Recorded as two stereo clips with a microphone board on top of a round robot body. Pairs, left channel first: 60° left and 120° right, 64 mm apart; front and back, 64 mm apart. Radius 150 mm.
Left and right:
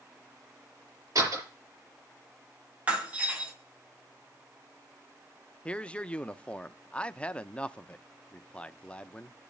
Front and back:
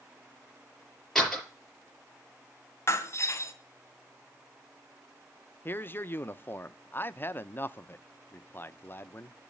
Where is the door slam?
90° right, 6.5 m.